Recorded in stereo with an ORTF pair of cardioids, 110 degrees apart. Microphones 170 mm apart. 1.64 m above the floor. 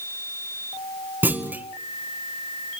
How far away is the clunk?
About 1.4 m.